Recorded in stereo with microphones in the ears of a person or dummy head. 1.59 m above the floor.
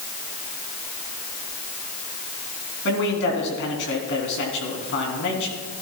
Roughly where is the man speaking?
Left.